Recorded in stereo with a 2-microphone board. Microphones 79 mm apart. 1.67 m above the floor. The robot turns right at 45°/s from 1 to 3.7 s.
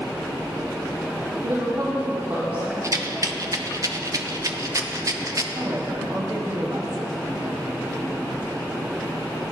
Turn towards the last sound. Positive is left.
turn(degrees=-55)  # may be behind; listen again after turning